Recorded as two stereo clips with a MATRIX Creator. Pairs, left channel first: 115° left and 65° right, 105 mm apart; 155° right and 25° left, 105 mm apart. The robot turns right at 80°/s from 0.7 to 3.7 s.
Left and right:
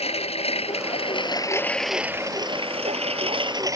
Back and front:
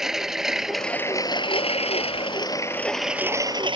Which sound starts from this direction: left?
A lawn mower, at 0.0 s.